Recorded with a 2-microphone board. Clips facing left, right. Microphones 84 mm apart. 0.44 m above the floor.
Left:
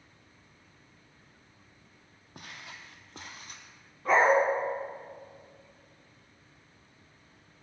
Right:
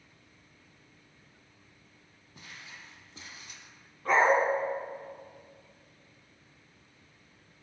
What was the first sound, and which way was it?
Footsteps, 65° left (ahead or behind).